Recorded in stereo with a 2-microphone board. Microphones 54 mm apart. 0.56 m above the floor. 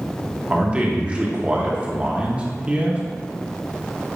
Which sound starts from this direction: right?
A man speaking, at 0.5 s.